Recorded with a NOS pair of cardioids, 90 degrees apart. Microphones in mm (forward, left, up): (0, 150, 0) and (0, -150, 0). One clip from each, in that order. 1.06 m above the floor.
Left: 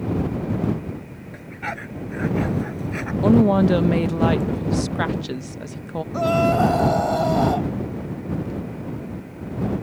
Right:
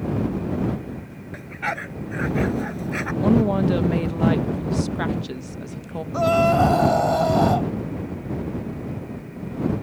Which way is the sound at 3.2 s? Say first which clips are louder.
Left 4 dB; 20° left.